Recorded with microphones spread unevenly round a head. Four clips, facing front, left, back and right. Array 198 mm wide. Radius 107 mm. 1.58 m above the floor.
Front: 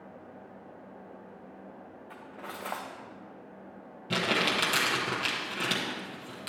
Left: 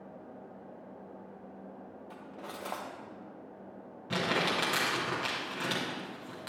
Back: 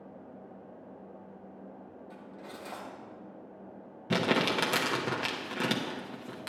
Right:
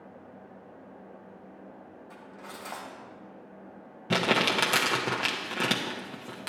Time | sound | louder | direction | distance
2.1 | cutlery clinking | left 1 dB, front 5 dB | 35° left | 0.7 m
4.1 | crumpling | right 5 dB, back 2 dB | 130° right | 0.9 m